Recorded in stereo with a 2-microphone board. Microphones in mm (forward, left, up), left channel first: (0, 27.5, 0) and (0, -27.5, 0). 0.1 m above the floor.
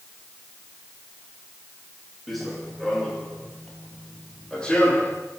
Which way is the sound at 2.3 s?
Centre (ahead or behind).